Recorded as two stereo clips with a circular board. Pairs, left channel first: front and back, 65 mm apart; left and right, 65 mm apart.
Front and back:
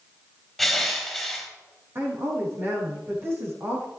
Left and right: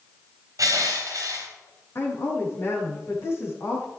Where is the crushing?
90° right, 2.5 m.